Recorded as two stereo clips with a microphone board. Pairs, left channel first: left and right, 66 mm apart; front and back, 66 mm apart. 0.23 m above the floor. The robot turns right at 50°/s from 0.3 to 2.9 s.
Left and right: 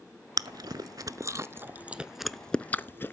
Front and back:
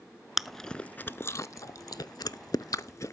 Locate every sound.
0.4 s chewing: 95° right, 0.5 m; by 3.1 s 30° left, 0.5 m